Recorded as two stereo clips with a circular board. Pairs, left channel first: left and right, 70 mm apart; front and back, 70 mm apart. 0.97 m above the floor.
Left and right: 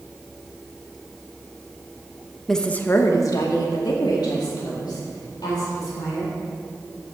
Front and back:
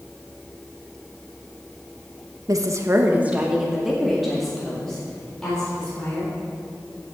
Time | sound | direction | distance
2.5 | a woman speaking | 175° left | 1.0 m